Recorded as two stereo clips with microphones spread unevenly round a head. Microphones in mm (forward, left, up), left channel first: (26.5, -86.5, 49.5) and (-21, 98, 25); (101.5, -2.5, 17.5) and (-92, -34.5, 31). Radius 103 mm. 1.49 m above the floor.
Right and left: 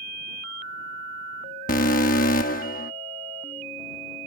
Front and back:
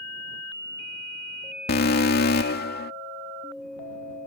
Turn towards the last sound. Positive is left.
turn(degrees=-30)